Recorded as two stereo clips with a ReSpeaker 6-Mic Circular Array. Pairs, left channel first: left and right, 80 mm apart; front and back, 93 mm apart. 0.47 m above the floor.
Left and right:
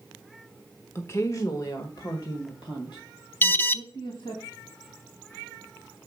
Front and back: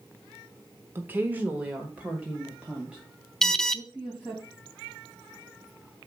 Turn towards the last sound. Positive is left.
turn(degrees=80)